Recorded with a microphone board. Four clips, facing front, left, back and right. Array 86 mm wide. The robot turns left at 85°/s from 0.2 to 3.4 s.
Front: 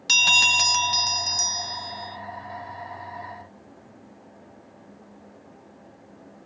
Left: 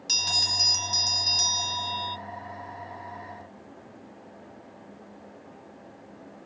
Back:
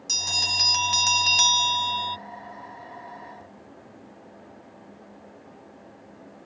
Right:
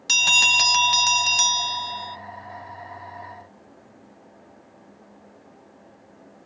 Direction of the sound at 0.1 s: 35° right.